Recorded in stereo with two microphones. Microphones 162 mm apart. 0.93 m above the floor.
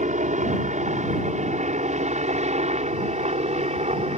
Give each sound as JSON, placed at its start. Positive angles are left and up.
{"t": 0.0, "sound": "a helicopter", "side_deg": -50}